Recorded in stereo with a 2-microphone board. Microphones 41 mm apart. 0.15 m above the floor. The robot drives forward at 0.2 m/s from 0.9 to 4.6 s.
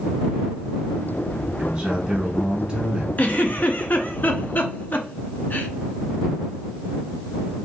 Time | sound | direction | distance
1.6 | a man speaking | 20° right (ahead or behind) | 1.1 m
3.2 | a giggle | 45° left (ahead or behind) | 0.5 m